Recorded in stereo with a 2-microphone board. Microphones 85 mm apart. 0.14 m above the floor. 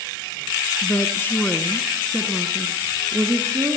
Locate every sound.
0.8 s a woman speaking: 40° left (ahead or behind), 1.7 m; by 3.8 s 45° right (ahead or behind), 2 m